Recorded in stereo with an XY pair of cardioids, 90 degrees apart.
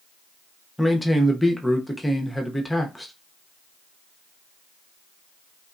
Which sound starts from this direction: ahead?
A man speaking, at 0.8 s.